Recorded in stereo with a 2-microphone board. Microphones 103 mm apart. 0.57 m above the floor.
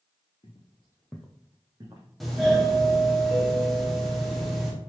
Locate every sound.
0.4 s footsteps: 60° left (ahead or behind), 1.1 m; by 2.1 s 40° right (ahead or behind), 1.5 m
2.2 s a doorbell: centre (ahead or behind), 1.1 m